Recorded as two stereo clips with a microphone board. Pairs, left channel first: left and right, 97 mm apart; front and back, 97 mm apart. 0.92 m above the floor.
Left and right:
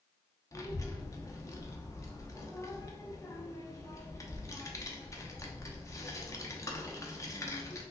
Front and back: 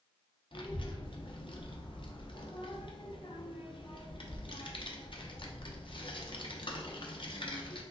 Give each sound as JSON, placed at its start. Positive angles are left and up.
{"t": 0.5, "sound": "a child speaking", "azimuth_deg": 30, "distance_m": 0.7}